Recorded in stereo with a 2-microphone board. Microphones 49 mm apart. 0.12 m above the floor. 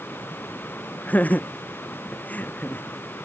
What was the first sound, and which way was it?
Laughter, 35° left (ahead or behind).